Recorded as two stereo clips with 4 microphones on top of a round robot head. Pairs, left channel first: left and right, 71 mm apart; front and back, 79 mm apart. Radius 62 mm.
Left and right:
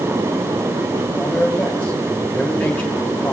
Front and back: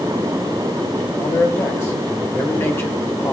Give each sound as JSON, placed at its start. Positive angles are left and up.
{"t": 1.2, "sound": "a man speaking", "azimuth_deg": 35, "distance_m": 1.0}